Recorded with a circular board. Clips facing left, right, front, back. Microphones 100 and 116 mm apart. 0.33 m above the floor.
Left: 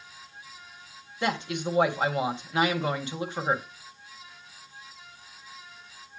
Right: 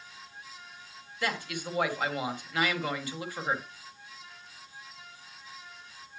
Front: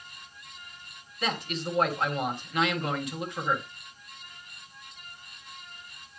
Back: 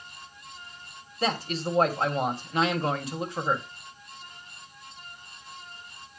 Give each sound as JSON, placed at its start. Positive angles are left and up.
{"t": 1.2, "sound": "a man speaking", "azimuth_deg": 140, "distance_m": 1.7}